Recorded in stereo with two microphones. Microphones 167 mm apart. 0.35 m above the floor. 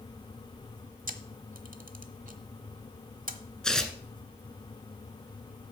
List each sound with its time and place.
1.1 s a camera shutter: 55° right (ahead or behind), 1.0 m
3.6 s tearing paper: 5° left (ahead or behind), 1.4 m